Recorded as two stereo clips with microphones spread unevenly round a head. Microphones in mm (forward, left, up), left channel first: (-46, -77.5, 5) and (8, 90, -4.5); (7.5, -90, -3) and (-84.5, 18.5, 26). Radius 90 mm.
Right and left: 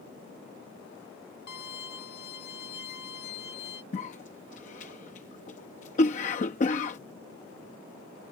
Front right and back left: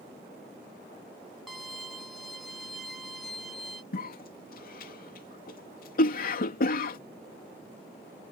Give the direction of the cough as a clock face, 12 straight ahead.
2 o'clock.